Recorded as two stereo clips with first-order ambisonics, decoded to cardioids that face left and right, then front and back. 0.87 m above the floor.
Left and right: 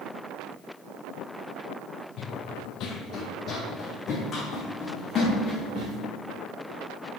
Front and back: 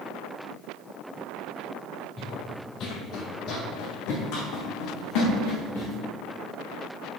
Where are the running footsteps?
65° left, 1.2 m; by 6.0 s 15° left, 4.5 m.